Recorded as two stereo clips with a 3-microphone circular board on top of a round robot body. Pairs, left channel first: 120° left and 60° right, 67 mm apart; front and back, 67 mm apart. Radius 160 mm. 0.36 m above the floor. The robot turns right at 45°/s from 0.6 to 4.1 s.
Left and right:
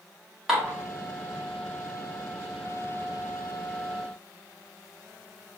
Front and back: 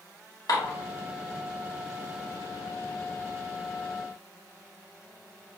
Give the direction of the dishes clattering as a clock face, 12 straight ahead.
11 o'clock.